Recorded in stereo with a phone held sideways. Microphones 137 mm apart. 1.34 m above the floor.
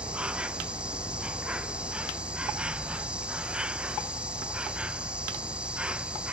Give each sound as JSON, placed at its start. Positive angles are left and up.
{"t": 0.0, "sound": "an insect", "side_deg": -10}